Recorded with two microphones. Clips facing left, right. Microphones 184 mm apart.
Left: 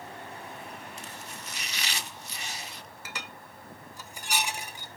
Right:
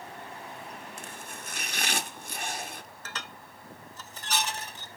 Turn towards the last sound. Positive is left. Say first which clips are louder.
# left 1 dB
turn(degrees=10)  # may be behind; listen again after turning